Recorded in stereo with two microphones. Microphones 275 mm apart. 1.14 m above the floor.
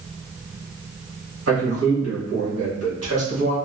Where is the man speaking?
60° right (ahead or behind), 1.3 m.